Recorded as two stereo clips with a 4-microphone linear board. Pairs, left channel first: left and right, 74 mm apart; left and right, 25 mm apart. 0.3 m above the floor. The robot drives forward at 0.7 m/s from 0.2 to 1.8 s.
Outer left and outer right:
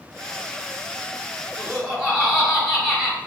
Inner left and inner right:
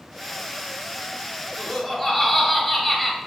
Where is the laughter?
10° right (ahead or behind), 2 m.